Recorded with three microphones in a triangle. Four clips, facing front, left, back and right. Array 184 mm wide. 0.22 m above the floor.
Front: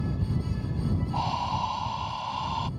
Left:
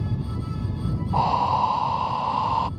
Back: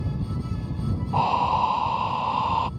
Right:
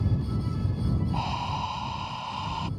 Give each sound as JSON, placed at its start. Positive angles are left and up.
{"t": 1.1, "sound": "breathing", "azimuth_deg": 140}